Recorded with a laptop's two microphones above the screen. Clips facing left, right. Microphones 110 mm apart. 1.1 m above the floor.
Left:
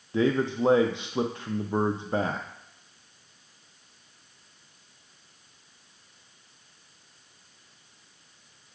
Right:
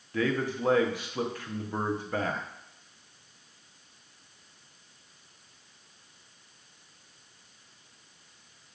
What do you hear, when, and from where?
0.1 s a man speaking: 25° left (ahead or behind), 0.6 m